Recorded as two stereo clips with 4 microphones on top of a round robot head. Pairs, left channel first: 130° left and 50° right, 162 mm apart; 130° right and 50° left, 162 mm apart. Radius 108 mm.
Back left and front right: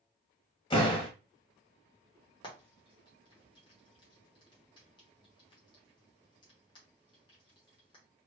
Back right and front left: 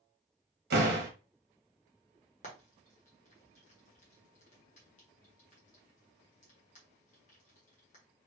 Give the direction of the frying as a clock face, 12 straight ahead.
6 o'clock.